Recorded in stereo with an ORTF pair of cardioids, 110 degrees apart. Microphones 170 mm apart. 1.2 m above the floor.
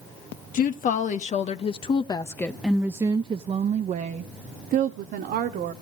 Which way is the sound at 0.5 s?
55° left.